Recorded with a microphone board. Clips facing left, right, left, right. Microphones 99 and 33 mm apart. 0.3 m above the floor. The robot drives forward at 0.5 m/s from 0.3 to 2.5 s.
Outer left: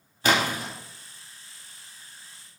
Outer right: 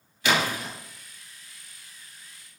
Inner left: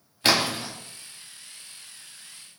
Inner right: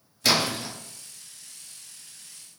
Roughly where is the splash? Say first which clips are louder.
Outer left 1 dB, inner left 1 dB; left.